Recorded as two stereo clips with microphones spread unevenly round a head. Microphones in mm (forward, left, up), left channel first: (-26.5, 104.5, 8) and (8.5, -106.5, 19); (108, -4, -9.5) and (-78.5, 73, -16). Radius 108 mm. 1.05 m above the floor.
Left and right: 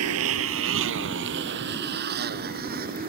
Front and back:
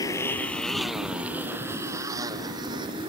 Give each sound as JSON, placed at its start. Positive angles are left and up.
{"t": 0.0, "sound": "a motorcycle", "azimuth_deg": -100}